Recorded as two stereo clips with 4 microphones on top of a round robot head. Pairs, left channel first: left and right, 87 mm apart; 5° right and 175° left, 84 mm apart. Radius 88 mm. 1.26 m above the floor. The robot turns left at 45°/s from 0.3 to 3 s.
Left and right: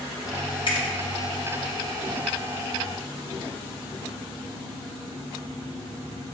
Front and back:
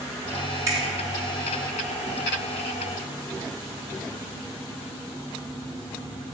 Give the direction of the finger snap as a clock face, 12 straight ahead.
8 o'clock.